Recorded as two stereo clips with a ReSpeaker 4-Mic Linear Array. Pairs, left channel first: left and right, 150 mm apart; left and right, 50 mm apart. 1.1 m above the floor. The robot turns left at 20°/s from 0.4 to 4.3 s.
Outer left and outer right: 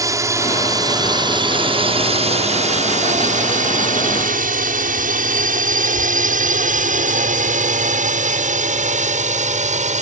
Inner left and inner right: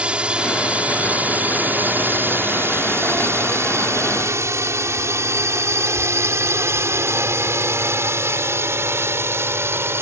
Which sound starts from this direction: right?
A drone, at 0.0 s.